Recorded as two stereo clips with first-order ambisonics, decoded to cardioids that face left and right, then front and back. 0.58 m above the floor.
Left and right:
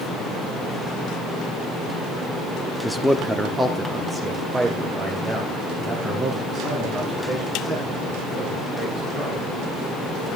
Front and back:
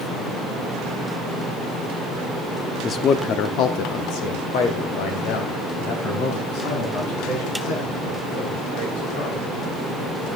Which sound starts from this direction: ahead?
A man speaking, at 2.8 s.